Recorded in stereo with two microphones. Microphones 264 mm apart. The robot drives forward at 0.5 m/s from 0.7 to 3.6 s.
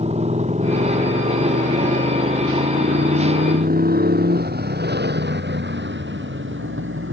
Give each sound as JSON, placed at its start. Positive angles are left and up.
{"t": 0.0, "sound": "a motorcycle", "side_deg": -25}